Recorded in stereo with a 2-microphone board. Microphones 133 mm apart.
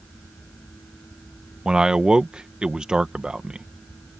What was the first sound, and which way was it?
A man speaking, 5° right (ahead or behind).